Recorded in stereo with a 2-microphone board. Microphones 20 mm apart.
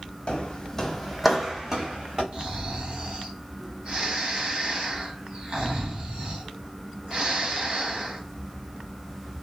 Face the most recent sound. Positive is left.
turn(degrees=-60)  # may be behind; listen again after turning